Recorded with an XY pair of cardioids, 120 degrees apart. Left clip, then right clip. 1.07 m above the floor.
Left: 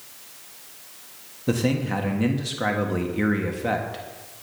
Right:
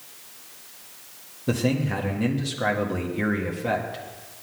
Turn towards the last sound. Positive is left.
turn(degrees=10)